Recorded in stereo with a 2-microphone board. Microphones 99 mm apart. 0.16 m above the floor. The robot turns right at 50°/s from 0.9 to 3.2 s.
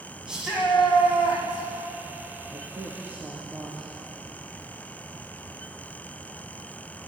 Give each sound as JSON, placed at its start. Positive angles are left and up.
{"t": 0.3, "sound": "a shout", "azimuth_deg": -170, "distance_m": 9.5}
{"t": 2.5, "sound": "a woman speaking", "azimuth_deg": -55, "distance_m": 4.0}